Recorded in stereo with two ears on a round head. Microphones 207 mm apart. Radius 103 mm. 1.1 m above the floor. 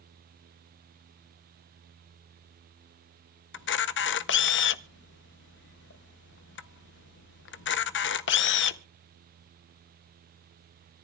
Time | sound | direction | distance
3.5 | a camera shutter | 50° left (ahead or behind) | 0.7 m